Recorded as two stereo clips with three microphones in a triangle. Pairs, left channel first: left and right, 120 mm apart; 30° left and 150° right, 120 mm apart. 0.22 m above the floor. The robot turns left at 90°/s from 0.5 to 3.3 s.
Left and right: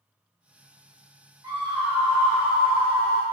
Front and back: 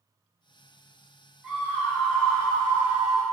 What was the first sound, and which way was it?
A scream, 75° right.